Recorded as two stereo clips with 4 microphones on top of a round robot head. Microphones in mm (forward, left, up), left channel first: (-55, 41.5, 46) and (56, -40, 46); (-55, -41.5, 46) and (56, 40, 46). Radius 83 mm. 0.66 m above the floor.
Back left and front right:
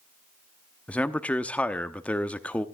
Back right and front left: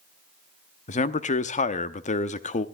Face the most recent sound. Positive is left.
turn(degrees=-135)